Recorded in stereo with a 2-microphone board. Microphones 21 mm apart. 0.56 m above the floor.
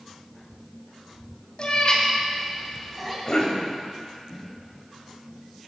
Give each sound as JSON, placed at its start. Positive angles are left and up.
{"t": 1.6, "sound": "a cat meowing", "side_deg": 50, "distance_m": 2.0}
{"t": 3.2, "sound": "a cough", "side_deg": 35, "distance_m": 2.5}